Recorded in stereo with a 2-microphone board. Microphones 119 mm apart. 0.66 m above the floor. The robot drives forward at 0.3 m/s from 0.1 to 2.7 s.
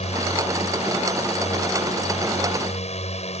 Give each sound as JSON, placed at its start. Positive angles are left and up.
{"t": 0.0, "sound": "a drone", "side_deg": 65}